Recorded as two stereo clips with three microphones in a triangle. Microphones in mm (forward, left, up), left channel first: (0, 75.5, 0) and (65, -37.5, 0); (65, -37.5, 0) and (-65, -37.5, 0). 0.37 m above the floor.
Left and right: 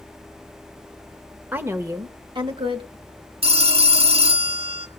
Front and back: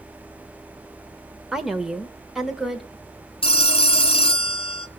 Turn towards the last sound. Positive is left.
turn(degrees=-35)